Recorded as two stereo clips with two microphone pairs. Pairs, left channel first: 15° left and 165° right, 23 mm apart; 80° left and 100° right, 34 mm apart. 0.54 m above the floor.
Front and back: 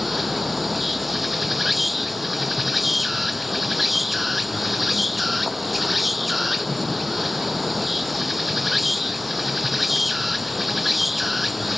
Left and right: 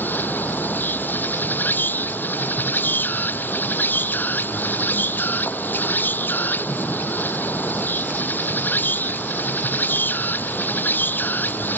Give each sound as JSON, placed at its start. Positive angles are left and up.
{"t": 0.0, "sound": "an insect", "azimuth_deg": 105}